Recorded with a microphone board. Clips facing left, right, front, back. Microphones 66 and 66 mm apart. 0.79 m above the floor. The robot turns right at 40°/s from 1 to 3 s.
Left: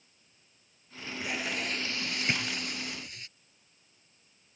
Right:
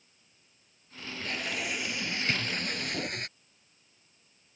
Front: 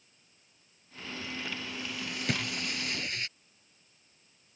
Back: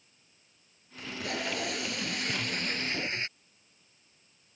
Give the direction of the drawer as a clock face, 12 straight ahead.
11 o'clock.